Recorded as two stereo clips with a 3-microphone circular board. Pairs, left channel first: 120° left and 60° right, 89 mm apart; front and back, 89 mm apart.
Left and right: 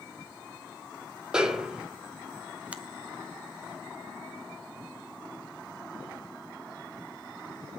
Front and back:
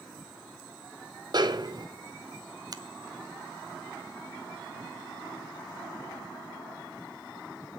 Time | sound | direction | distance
1.3 | a snare drum | 140° right | 2 m
2.7 | a finger snap | 135° right | 0.9 m